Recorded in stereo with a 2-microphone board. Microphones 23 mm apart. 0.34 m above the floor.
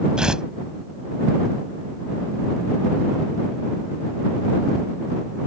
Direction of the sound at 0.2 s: 40° right (ahead or behind).